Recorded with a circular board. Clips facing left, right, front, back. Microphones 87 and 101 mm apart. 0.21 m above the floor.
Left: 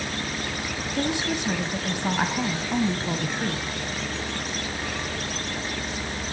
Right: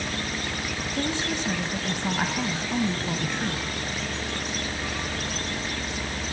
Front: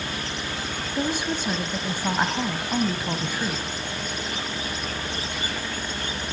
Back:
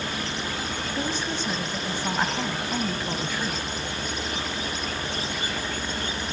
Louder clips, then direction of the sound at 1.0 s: Left 2 dB, front 4 dB; 50° left.